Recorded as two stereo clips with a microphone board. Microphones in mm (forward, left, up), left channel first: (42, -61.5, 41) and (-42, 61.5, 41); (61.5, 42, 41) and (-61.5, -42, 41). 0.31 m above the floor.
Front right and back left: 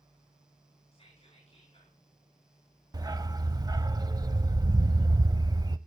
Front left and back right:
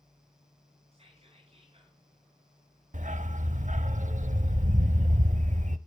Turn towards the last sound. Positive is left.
turn(degrees=-175)